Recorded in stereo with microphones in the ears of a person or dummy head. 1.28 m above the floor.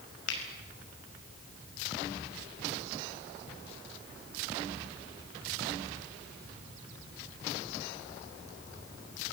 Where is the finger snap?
75° left (ahead or behind), 5.5 m.